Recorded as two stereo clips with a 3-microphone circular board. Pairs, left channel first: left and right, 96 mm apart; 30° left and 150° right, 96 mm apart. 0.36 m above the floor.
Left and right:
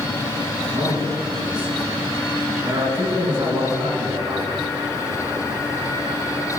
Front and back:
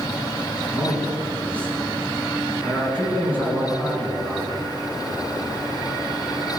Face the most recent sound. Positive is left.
turn(degrees=-45)